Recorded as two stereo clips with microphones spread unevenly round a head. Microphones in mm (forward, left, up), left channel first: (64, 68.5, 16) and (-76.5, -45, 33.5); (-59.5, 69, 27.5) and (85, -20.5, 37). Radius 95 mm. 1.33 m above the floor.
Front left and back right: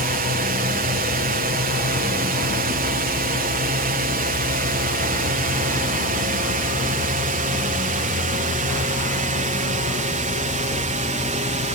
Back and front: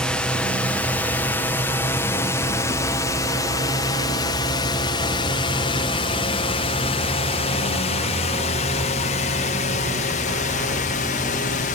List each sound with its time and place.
0.0 s a drone: 130° right; by 11.8 s 175° left